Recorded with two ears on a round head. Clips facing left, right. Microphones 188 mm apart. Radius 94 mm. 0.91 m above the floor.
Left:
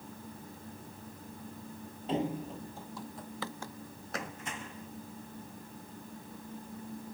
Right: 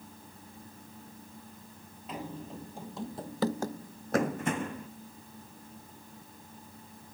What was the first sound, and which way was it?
Running footsteps, 25° left (ahead or behind).